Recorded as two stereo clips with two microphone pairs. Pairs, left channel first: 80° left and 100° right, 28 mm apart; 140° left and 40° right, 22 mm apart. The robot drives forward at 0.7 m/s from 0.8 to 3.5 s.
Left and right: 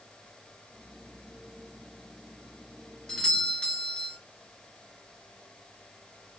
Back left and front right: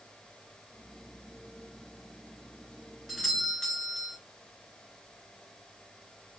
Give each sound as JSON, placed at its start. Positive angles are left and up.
{"t": 3.1, "sound": "a doorbell", "azimuth_deg": 55, "distance_m": 1.5}